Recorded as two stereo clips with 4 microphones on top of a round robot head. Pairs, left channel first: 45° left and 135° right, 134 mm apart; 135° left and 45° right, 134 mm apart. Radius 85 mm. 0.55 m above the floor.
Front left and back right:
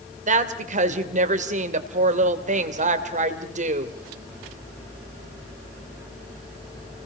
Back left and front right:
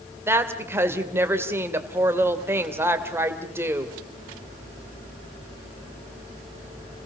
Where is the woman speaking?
115° right, 2.5 m.